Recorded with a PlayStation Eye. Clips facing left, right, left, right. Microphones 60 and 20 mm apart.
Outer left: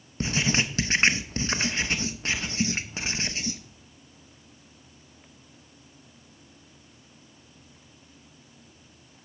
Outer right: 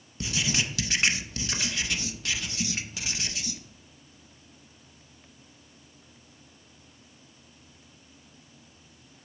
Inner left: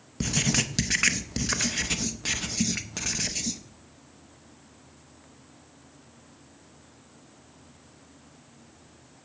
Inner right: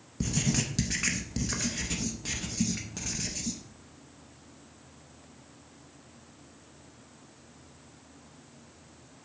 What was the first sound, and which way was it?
Writing, 35° left (ahead or behind).